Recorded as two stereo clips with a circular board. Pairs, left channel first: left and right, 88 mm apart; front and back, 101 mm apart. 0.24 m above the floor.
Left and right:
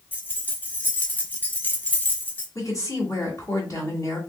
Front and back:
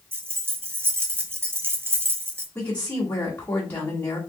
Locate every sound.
0.1 s keys jangling: 135° left, 1.0 m
2.5 s a woman speaking: 60° left, 1.9 m